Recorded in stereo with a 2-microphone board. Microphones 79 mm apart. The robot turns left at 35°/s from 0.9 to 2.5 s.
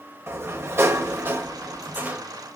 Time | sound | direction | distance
0.3 | a sliding door | 105° right | 0.8 m